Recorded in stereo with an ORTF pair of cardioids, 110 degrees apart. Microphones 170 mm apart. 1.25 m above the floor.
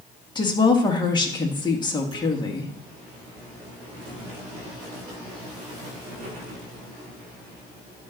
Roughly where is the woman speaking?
Ahead left.